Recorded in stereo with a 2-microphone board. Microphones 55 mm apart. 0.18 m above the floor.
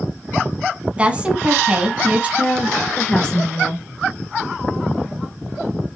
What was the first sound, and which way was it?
A woman speaking, 20° right (ahead or behind).